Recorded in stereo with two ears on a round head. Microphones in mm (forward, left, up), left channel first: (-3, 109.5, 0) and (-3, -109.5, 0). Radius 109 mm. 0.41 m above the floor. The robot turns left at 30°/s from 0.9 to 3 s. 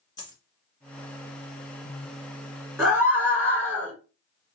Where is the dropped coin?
20° left (ahead or behind), 1.7 m.